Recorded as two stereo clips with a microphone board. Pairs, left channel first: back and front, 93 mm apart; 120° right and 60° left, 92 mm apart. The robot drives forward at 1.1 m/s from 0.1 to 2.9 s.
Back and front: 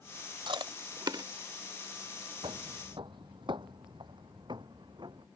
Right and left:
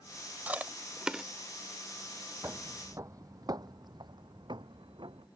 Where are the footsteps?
Straight ahead; by 5.3 s 35° left.